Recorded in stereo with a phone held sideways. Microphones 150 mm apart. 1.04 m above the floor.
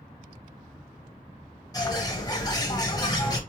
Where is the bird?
25° left (ahead or behind), 0.9 m.